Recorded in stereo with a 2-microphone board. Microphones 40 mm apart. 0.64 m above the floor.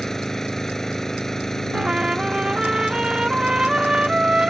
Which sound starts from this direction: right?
A trumpet, at 1.7 s.